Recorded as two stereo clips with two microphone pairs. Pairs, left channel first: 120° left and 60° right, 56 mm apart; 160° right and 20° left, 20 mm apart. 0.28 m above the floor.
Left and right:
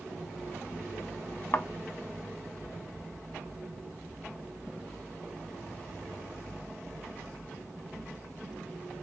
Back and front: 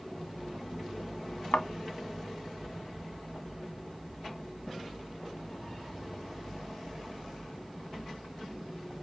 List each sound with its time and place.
1.5 s a thud: 175° left, 0.7 m